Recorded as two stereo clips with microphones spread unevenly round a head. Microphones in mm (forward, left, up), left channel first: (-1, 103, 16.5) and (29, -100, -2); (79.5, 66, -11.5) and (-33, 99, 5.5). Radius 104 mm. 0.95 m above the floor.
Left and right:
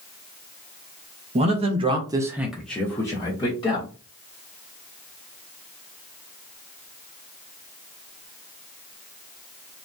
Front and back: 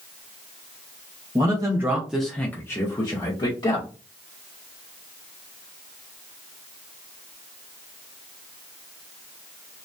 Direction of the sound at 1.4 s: 130° right.